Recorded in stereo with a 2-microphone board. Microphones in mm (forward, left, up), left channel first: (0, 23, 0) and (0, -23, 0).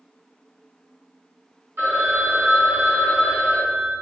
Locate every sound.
1.8 s a phone ringing: 60° right (ahead or behind), 1.8 m